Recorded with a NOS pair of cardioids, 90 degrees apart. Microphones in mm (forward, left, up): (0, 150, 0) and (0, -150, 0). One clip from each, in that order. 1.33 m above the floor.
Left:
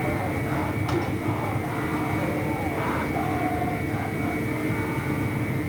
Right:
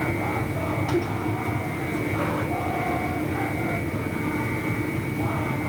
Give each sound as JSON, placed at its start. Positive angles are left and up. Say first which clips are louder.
{"t": 0.0, "sound": "a fan", "louder": "right 1 dB", "azimuth_deg": 10, "distance_m": 4.0}